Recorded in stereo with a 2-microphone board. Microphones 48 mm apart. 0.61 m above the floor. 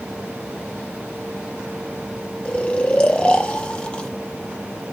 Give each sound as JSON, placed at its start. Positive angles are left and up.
{"t": 2.5, "sound": "snoring", "side_deg": 25, "distance_m": 0.5}